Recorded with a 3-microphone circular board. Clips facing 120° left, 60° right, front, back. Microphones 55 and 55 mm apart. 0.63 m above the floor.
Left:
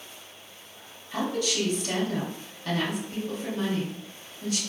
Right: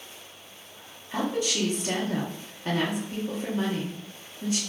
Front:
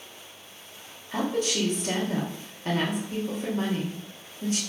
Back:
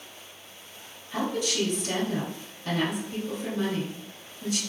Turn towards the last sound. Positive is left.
turn(degrees=-15)